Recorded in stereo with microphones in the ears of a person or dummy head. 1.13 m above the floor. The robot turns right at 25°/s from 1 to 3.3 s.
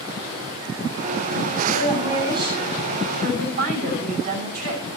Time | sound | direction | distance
1.7 | a woman speaking | 175° right | 8 m